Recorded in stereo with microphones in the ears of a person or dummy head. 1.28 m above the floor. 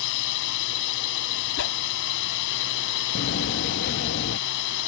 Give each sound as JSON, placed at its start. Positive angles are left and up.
{"t": 0.0, "sound": "a drone", "side_deg": 65}
{"t": 1.6, "sound": "a whoosh", "side_deg": 70}
{"t": 3.1, "sound": "a door slam", "side_deg": 55}